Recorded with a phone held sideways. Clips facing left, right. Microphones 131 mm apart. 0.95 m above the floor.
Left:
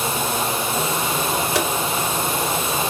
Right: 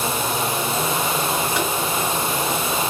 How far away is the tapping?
About 1.4 m.